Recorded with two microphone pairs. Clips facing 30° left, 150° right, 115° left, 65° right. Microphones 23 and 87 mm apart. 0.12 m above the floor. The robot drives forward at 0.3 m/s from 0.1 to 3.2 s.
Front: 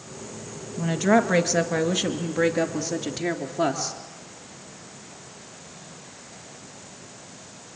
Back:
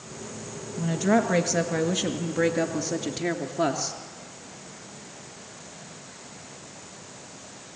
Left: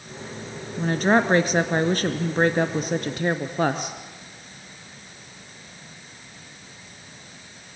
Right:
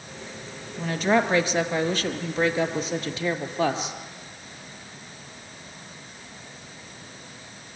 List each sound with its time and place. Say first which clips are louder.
0.8 s a woman speaking: front 3 dB, left 2 dB; 85° left, 2.0 m; by 4.0 s 115° left, 2 m